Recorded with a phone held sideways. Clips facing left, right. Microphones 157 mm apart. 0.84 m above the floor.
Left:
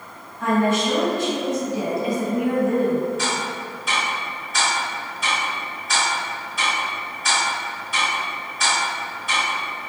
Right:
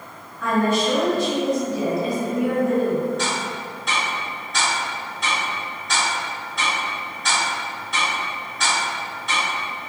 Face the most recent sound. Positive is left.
turn(degrees=5)  # may be behind; listen again after turning